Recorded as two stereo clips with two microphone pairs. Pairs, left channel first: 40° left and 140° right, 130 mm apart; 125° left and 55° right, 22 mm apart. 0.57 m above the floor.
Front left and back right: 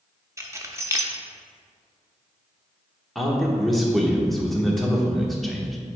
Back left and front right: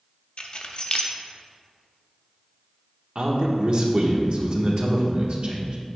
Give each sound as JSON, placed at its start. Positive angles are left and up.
{"t": 0.4, "sound": "keys jangling", "azimuth_deg": 155, "distance_m": 0.6}
{"t": 3.1, "sound": "a man speaking", "azimuth_deg": -45, "distance_m": 1.1}